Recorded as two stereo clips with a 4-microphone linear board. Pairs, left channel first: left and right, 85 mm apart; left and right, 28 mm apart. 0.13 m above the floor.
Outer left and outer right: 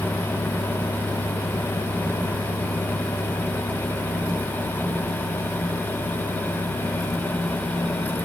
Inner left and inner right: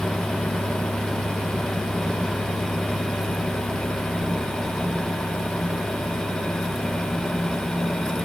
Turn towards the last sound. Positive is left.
No sound to turn to.